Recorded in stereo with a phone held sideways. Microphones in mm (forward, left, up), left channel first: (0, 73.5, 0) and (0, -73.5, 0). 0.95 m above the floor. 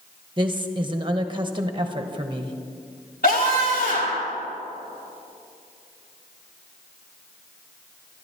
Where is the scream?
75° left (ahead or behind), 3 m.